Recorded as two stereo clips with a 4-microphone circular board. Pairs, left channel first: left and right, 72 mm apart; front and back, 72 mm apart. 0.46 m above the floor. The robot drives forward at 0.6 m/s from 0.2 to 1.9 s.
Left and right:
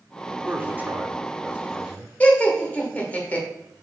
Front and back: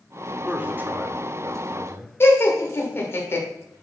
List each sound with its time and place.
0.5 s a man speaking: 120° right, 0.8 m; by 2.1 s 160° right, 1.3 m
2.2 s laughter: 30° left, 1.5 m